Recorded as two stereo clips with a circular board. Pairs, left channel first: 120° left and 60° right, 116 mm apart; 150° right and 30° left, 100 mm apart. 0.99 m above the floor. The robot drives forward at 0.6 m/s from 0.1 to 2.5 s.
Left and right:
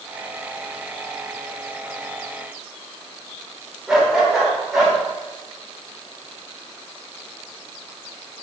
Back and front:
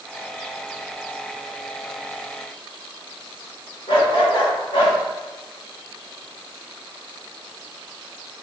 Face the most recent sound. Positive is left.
turn(degrees=-145)